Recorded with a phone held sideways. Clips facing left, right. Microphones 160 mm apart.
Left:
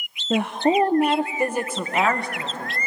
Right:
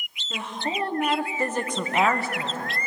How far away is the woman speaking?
About 0.6 m.